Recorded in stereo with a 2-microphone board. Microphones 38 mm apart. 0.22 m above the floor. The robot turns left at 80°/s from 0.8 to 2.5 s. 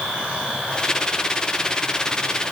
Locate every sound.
Only background noise.